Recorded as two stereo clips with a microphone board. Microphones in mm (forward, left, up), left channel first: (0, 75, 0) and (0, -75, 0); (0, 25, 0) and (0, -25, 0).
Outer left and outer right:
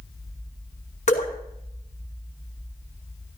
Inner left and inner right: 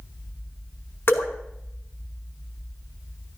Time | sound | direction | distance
1.1 | dripping | 50° left (ahead or behind) | 2.5 m